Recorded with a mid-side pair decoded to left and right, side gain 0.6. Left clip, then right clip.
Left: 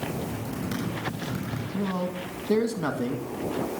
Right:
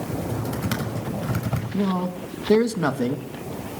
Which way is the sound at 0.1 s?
60° right.